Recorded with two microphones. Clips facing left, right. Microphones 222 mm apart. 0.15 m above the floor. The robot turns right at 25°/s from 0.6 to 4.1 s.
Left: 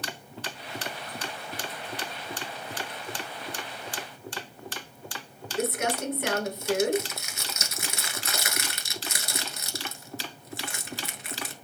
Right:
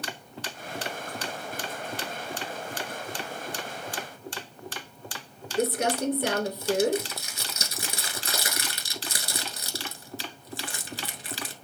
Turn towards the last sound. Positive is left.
turn(degrees=-30)  # may be behind; listen again after turning